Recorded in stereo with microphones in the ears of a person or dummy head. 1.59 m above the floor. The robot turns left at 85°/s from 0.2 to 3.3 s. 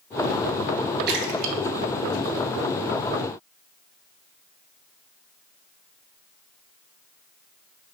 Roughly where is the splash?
Right.